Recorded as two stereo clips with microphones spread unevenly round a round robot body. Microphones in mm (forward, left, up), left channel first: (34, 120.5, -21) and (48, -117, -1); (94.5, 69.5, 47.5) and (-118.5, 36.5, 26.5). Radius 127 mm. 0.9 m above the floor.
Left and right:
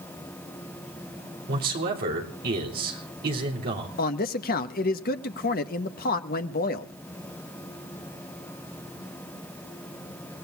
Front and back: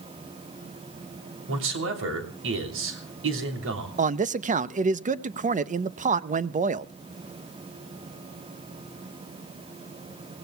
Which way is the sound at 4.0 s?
140° left.